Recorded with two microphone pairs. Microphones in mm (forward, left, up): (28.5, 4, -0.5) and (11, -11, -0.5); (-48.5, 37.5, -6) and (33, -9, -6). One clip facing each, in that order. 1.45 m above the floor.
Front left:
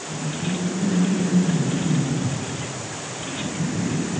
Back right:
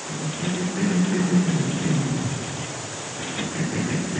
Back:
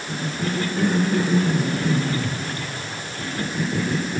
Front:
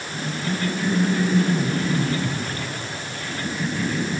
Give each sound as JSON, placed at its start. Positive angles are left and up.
{"t": 0.1, "sound": "a cough", "azimuth_deg": 180, "distance_m": 4.0}